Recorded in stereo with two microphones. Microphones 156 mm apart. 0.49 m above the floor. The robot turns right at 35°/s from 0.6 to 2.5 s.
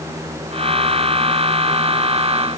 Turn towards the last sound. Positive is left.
No sound to turn to.